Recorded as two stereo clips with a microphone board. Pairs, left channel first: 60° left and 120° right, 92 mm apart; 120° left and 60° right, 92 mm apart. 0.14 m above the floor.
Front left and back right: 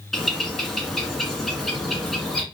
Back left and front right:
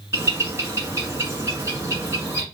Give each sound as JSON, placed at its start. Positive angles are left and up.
{"t": 0.1, "sound": "a bird", "azimuth_deg": -25, "distance_m": 1.0}